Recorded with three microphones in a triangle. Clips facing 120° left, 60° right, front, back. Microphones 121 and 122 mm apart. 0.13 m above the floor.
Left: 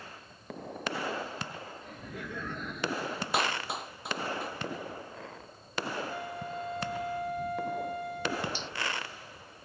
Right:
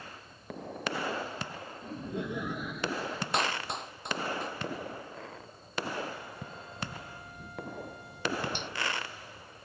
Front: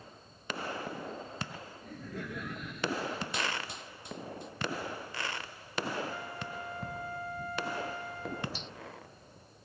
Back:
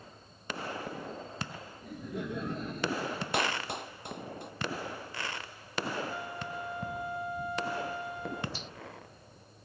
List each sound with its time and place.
1.8 s laughter: 100° right; by 3.2 s 165° right
3.3 s a clap: 155° right
6.1 s a flute: 105° left
8.5 s a finger snap: 95° right